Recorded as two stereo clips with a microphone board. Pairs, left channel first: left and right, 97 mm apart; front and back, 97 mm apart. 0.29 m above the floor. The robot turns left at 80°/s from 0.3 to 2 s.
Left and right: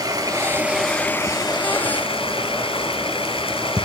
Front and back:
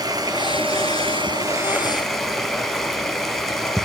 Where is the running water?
130° right, 2 m; by 3.9 s 90° left, 2 m.